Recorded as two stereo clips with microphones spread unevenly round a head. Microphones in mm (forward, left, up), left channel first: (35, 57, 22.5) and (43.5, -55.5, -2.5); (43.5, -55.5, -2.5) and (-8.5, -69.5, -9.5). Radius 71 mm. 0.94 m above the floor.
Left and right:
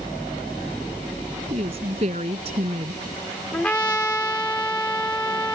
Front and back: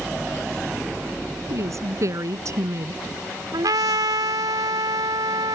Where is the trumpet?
175° left.